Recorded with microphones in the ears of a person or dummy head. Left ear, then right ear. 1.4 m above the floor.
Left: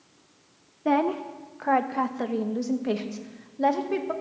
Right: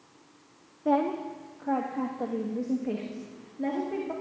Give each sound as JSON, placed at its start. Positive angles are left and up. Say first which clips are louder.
{"t": 0.8, "sound": "a woman speaking", "louder": "left 2 dB", "side_deg": 20, "distance_m": 0.6}